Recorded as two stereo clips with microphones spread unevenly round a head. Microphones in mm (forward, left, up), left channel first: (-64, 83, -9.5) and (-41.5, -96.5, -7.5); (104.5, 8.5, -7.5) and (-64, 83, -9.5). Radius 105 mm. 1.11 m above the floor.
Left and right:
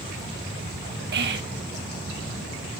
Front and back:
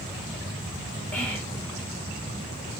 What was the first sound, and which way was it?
Whispering, 110° right.